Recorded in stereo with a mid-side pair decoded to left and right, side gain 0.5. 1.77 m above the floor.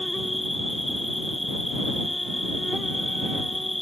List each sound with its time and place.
0.0 s an insect: 10° left